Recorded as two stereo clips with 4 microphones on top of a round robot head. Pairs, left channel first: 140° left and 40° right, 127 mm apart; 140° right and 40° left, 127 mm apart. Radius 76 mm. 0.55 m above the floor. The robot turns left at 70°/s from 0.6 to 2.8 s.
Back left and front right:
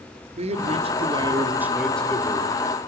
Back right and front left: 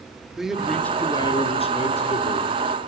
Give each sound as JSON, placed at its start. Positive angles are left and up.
{"t": 0.4, "sound": "a man speaking", "azimuth_deg": -45, "distance_m": 1.9}